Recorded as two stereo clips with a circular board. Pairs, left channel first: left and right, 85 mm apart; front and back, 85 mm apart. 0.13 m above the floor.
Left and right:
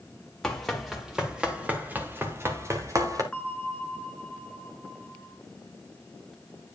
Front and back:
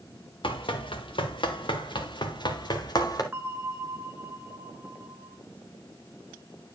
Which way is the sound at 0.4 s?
5° left.